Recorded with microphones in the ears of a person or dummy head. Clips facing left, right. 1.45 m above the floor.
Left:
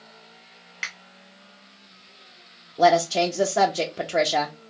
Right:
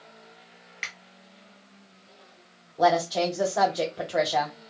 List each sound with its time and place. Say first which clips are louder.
0.8 s a finger snap: left 2 dB; 5° left (ahead or behind), 0.6 m
2.8 s a woman speaking: left 4 dB; 35° left (ahead or behind), 0.5 m